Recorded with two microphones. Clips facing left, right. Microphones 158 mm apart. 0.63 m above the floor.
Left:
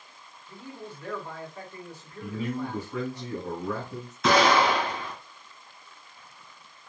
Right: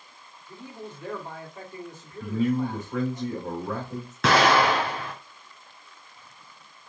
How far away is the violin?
I don't hear a violin.